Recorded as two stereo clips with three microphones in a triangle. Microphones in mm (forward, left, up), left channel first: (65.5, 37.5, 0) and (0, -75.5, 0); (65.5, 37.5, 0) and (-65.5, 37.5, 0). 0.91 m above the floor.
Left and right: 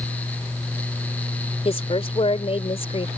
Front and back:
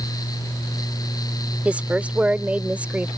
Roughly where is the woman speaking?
Left.